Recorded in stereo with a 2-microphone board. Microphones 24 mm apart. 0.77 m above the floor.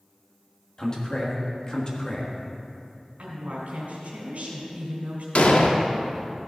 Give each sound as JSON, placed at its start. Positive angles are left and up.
{"t": 0.8, "sound": "a man speaking", "side_deg": 35, "distance_m": 1.4}
{"t": 3.2, "sound": "a woman speaking", "side_deg": -80, "distance_m": 3.0}
{"t": 5.3, "sound": "an explosion", "side_deg": 70, "distance_m": 0.8}